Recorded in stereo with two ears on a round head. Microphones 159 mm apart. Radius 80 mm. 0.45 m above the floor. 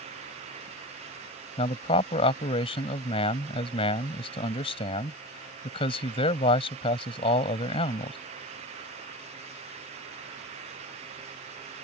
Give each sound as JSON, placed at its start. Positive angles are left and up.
{"t": 1.6, "sound": "a man speaking", "side_deg": 30}